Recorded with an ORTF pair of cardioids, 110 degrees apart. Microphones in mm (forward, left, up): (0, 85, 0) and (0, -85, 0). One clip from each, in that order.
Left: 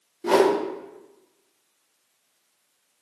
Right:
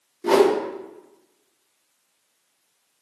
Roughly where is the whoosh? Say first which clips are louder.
Right 2 dB; ahead.